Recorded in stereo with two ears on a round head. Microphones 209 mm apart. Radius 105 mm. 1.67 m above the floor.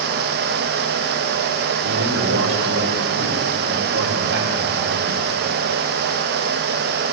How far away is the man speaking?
About 5.5 m.